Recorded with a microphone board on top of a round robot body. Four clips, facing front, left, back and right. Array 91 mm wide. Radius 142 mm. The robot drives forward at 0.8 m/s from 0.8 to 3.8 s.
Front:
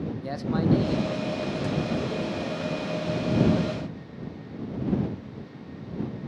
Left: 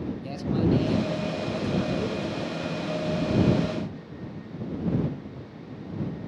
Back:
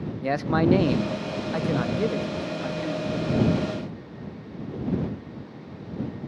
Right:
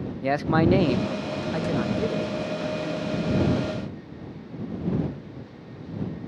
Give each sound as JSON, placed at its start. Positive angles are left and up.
{"t": 0.2, "sound": "a man speaking", "azimuth_deg": -120, "distance_m": 0.6}